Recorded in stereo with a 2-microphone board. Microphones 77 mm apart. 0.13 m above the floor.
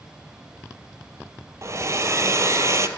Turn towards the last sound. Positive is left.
turn(degrees=-40)  # may be behind; listen again after turning